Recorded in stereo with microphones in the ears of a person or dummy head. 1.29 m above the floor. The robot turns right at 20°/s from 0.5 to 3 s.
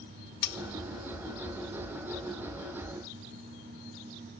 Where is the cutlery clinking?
60° left (ahead or behind), 0.7 m.